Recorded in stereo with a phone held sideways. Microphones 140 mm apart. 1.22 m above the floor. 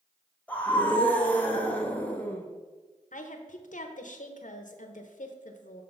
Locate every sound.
0.5 s a scream: 10° left (ahead or behind), 1.1 m
3.1 s a woman speaking: 65° left (ahead or behind), 0.8 m